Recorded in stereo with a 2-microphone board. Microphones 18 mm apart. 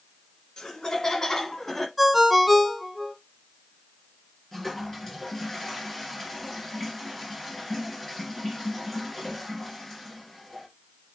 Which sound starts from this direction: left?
Laughter, at 0.6 s.